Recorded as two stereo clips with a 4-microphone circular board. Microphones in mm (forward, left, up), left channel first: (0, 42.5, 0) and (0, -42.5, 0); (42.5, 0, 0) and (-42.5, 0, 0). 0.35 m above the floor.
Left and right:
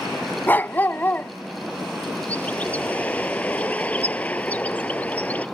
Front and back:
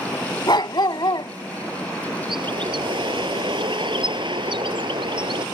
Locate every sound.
0.5 s a dog barking: 25° left
2.3 s a bird: 160° left